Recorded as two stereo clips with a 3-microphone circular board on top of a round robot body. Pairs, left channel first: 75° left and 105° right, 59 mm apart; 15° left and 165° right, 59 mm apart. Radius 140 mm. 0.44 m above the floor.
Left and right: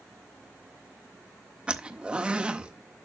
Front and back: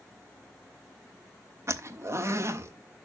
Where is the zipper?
170° right, 1.4 m.